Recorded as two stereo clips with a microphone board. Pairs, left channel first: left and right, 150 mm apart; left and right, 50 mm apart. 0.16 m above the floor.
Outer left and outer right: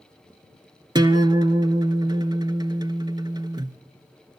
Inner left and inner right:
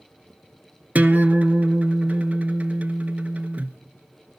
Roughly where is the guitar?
Right.